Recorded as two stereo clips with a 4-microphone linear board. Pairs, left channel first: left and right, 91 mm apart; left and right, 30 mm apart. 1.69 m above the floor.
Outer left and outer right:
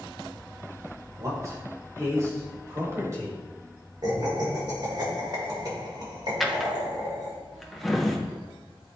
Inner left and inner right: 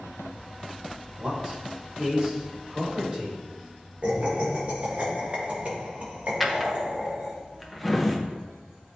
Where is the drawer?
Centre (ahead or behind), 0.8 m.